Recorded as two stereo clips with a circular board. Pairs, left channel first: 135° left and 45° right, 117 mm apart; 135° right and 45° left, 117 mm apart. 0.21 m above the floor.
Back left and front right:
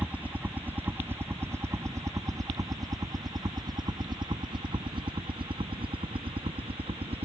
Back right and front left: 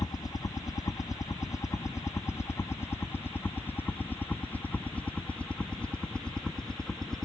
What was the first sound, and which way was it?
A helicopter, 115° right.